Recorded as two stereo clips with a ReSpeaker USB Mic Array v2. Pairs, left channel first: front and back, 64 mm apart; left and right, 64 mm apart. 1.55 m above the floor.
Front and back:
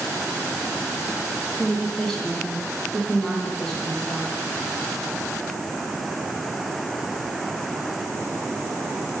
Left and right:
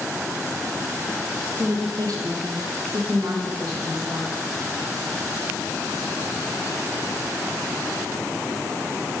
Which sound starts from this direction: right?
A woman speaking, at 1.6 s.